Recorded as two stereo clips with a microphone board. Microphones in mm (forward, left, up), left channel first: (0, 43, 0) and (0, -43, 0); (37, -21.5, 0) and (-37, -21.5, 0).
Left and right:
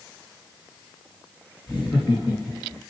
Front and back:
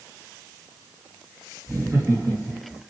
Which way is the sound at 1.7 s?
135° left.